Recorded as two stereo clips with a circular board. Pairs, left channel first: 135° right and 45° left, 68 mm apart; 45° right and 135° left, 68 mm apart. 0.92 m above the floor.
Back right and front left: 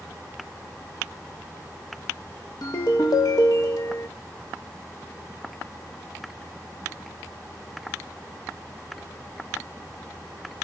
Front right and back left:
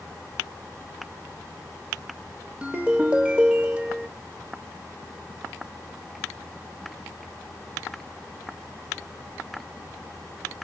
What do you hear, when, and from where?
2.6 s a ringtone: 155° right, 1.0 m